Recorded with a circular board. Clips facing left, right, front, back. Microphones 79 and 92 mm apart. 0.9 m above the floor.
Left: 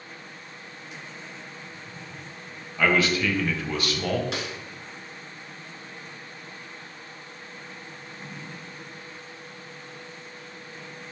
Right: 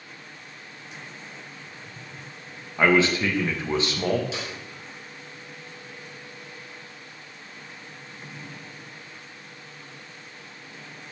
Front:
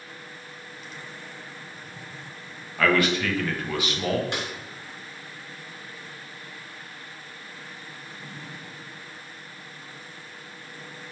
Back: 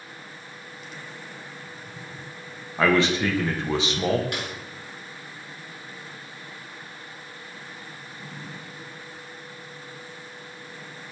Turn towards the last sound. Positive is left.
turn(degrees=65)